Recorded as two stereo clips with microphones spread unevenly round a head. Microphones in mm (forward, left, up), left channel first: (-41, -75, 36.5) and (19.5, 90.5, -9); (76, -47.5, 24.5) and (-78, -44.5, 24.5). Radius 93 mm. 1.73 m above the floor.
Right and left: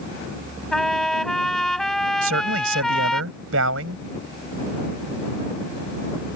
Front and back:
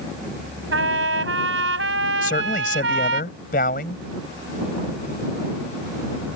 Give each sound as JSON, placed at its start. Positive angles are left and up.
{"t": 0.7, "sound": "a trumpet", "azimuth_deg": 165}
{"t": 2.2, "sound": "a man speaking", "azimuth_deg": 50}